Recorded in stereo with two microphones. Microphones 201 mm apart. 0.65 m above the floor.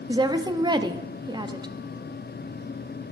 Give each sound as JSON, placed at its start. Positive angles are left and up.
{"t": 0.1, "sound": "a woman speaking", "side_deg": -20, "distance_m": 0.6}